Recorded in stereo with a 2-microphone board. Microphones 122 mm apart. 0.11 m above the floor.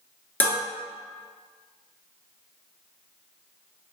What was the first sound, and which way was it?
Dishes clattering, 15° left (ahead or behind).